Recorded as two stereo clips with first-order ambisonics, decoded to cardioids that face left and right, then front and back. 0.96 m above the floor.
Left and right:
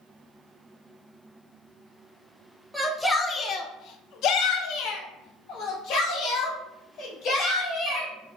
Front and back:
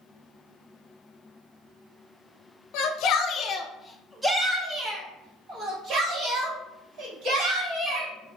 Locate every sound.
2.7 s a shout: straight ahead, 0.7 m; by 8.1 s 130° left, 3 m